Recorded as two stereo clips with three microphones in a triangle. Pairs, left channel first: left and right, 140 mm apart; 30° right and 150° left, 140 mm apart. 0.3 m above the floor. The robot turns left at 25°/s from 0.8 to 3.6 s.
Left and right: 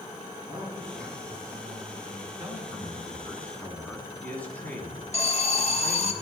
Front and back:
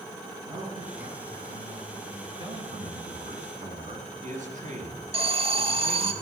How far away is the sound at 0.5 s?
About 6 m.